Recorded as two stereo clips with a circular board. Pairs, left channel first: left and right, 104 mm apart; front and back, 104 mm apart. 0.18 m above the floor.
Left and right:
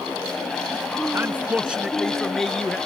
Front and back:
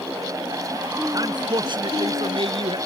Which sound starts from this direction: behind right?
A man speaking, at 1.1 s.